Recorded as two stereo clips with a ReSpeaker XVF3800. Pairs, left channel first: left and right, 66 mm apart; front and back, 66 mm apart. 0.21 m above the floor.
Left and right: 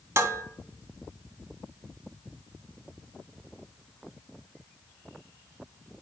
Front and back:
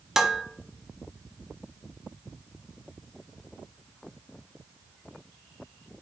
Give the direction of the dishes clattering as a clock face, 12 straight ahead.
3 o'clock.